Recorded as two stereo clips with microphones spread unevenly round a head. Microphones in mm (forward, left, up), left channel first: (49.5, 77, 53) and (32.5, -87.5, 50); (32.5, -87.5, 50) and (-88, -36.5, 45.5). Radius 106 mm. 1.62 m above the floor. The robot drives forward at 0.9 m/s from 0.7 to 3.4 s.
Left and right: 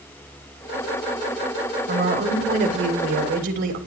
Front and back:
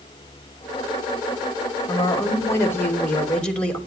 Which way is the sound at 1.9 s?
80° right.